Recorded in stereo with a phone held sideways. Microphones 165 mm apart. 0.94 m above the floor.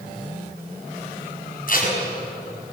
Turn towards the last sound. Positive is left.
turn(degrees=60)  # may be behind; listen again after turning